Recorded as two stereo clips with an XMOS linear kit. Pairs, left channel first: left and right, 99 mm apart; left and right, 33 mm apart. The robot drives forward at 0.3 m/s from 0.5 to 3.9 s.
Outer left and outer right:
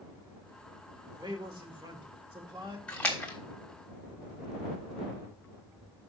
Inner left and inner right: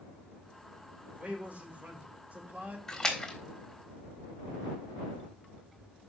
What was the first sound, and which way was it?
A man speaking, 50° right (ahead or behind).